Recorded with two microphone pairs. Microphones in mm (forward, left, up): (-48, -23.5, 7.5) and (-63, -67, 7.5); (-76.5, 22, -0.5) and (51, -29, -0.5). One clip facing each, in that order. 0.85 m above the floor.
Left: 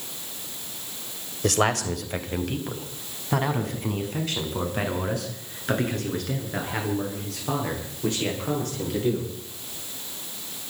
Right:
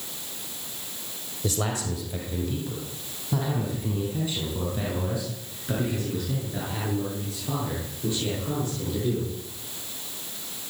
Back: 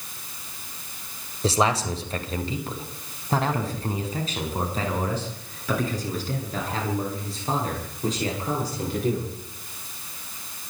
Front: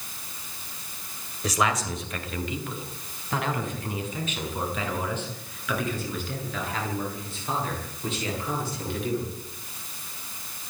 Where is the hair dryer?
I don't hear a hair dryer.